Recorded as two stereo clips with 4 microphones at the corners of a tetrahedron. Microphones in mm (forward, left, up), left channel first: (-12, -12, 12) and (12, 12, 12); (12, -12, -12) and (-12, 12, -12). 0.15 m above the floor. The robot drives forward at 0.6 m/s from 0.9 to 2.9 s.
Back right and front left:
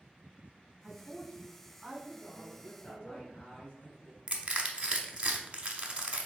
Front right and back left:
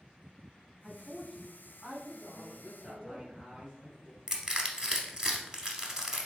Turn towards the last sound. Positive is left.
turn(degrees=80)